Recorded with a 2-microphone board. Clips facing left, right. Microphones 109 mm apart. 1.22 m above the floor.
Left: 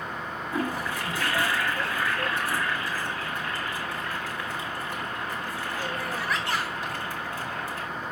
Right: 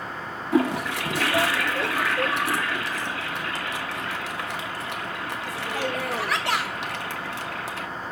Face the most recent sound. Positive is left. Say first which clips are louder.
# right 8 dB
turn(degrees=-75)  # may be behind; listen again after turning